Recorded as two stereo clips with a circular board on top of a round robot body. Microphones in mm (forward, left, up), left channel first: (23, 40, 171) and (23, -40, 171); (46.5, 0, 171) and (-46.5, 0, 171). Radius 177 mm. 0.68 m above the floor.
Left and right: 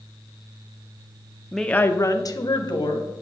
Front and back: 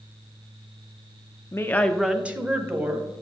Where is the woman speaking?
5° right, 1.0 m; by 3.1 s 120° left, 2 m.